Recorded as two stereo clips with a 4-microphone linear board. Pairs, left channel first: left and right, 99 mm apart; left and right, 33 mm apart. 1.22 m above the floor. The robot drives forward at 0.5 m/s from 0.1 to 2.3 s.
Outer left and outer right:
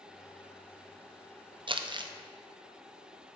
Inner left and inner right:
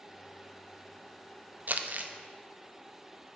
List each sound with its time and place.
1.7 s crumpling: 60° right (ahead or behind), 0.5 m; by 2.1 s 50° right (ahead or behind), 0.6 m